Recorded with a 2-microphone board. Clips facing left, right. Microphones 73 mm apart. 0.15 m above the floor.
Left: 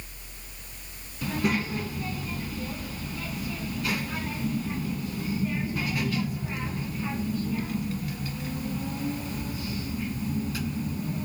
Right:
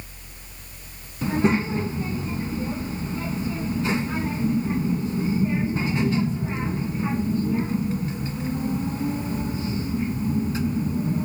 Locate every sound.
1.2 s a child speaking: 25° right (ahead or behind), 0.7 m